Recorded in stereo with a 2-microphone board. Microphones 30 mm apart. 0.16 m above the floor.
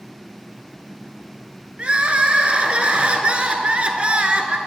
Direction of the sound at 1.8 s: 45° right (ahead or behind).